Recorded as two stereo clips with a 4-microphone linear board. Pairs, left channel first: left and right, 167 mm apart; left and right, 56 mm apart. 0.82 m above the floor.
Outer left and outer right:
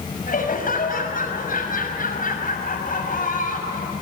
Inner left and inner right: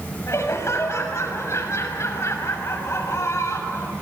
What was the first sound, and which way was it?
Laughter, 55° left (ahead or behind).